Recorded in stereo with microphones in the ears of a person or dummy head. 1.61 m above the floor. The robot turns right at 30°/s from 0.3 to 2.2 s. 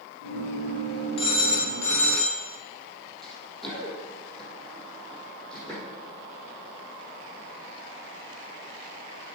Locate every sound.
1.2 s a phone ringing: 140° left, 0.9 m; by 2.4 s 170° left, 0.9 m
3.2 s running footsteps: centre (ahead or behind), 3 m; by 5.8 s 5° left (ahead or behind), 4.5 m